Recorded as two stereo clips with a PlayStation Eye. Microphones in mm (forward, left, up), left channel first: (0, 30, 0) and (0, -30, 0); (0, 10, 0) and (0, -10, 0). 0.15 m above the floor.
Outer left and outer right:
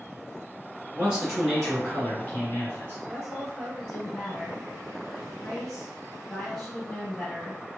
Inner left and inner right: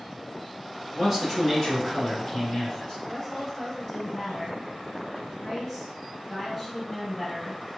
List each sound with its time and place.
0.9 s a man speaking: 15° right (ahead or behind), 1.6 m; by 3.0 s 35° left (ahead or behind), 1.6 m
3.0 s a woman speaking: 10° left (ahead or behind), 1.9 m